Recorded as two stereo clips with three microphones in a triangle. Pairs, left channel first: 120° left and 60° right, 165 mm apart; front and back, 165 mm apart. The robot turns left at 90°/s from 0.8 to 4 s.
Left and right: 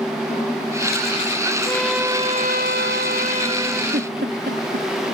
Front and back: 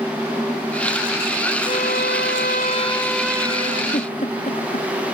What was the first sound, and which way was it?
A violin, 50° left.